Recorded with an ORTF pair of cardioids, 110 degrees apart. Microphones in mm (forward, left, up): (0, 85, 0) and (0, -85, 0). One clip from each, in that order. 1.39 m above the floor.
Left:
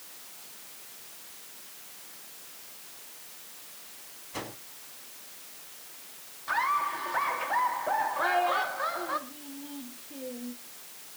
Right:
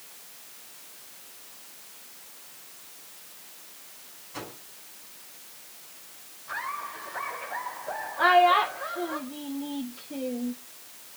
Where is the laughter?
55° left, 3.5 m.